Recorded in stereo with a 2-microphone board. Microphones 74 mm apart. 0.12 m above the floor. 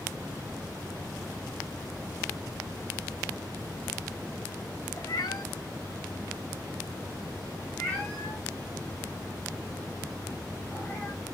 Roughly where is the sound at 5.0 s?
Left.